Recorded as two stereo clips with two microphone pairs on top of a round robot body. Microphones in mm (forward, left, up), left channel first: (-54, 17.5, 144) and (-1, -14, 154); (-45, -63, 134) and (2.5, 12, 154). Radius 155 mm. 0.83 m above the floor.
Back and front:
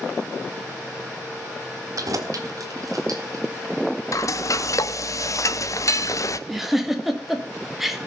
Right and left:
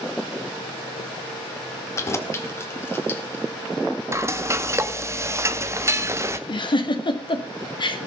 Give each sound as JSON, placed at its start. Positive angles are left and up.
{"t": 2.0, "sound": "keys jangling", "azimuth_deg": -65, "distance_m": 1.5}
{"t": 4.1, "sound": "frying", "azimuth_deg": 120, "distance_m": 1.1}
{"t": 6.5, "sound": "a giggle", "azimuth_deg": -120, "distance_m": 2.5}